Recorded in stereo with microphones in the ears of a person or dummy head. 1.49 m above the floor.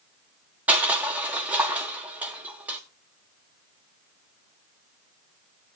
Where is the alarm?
I don't hear an alarm.